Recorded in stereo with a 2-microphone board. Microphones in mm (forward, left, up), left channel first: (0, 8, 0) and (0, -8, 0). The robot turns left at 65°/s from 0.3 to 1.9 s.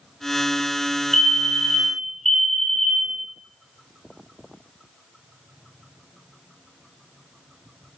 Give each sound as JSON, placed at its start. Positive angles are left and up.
{"t": 1.1, "sound": "a fire alarm", "side_deg": 15, "distance_m": 2.0}